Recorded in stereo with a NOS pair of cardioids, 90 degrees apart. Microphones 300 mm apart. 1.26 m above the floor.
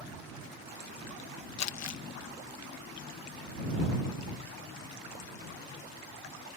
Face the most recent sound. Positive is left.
turn(degrees=60)